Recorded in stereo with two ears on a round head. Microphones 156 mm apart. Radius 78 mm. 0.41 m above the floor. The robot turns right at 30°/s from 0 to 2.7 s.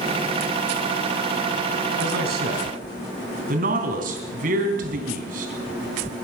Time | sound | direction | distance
2.0 | a man speaking | 70° right (ahead or behind) | 3 m